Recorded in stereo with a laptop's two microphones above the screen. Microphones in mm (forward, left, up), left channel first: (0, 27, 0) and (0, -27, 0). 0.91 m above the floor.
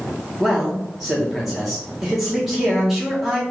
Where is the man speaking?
5° right (ahead or behind), 0.9 m.